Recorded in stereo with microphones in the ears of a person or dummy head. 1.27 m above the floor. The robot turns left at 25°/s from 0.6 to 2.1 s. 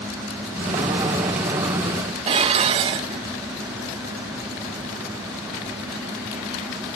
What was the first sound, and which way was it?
Dishes clattering, 35° right (ahead or behind).